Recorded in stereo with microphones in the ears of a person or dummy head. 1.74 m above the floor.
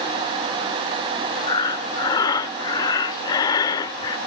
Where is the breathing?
20° left (ahead or behind), 0.7 m.